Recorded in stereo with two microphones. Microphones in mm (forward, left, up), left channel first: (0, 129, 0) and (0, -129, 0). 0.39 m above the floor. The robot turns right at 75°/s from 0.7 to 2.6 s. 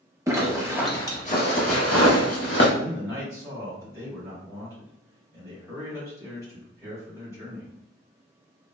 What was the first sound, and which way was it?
A zipper, 10° right (ahead or behind).